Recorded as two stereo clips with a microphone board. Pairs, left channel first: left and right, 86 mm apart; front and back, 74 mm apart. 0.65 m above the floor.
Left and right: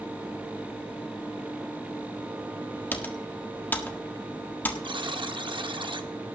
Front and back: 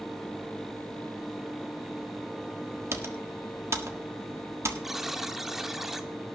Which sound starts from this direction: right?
A buzzer, at 4.8 s.